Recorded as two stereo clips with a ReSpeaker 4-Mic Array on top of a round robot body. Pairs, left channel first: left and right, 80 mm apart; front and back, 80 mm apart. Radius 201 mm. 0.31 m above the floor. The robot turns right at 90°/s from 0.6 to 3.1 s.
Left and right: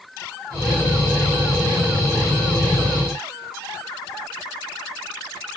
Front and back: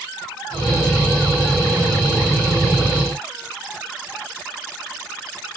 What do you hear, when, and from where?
Only background noise.